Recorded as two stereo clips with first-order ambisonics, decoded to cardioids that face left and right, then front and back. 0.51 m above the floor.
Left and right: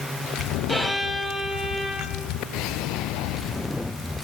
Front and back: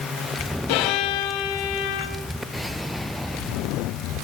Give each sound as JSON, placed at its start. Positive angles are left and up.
{"t": 0.7, "sound": "a violin", "azimuth_deg": 0, "distance_m": 0.6}